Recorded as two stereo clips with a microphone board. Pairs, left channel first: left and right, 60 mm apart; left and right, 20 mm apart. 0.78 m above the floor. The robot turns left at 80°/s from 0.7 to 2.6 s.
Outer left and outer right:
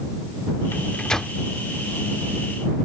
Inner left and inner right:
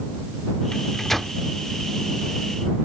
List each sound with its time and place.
0.7 s a microwave: 45° left (ahead or behind); by 1.4 s 5° right (ahead or behind)